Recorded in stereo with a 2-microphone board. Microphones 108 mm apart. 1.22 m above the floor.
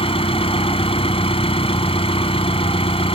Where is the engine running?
60° left (ahead or behind).